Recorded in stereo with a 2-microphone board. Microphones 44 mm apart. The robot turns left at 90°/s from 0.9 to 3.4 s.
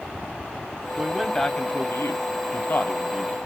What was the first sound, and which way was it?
A man speaking, 150° right.